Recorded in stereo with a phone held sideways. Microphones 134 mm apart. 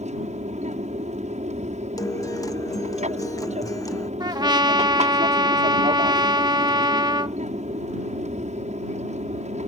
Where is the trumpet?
30° right (ahead or behind).